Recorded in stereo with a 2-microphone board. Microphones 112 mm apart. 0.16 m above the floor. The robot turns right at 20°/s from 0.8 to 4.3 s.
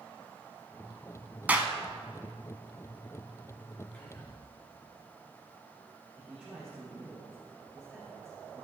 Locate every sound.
1.5 s a clap: 15° right (ahead or behind), 1.1 m
3.9 s whispering: 15° left (ahead or behind), 3 m; by 4.3 s 25° left (ahead or behind), 3 m
6.2 s a man speaking: 10° right (ahead or behind), 3 m